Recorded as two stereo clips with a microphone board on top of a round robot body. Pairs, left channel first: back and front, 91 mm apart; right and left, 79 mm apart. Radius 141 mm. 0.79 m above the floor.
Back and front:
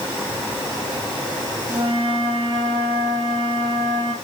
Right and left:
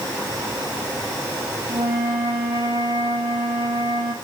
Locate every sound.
1.7 s a flute: 35° left, 6.5 m